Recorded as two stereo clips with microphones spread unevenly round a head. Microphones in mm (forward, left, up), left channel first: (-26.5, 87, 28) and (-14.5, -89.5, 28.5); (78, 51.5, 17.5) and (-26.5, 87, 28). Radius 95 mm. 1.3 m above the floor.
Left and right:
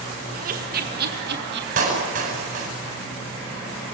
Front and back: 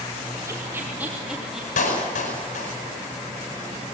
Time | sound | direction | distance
0.3 | laughter | 130° right | 2.5 m
1.8 | a clap | 35° right | 9.5 m